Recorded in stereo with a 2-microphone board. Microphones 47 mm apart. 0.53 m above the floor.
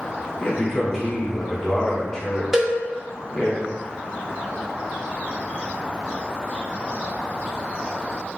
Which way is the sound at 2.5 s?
10° right (ahead or behind).